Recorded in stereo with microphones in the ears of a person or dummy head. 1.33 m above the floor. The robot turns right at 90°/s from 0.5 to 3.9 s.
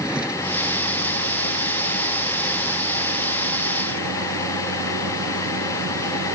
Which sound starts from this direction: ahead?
A vehicle, at 0.0 s.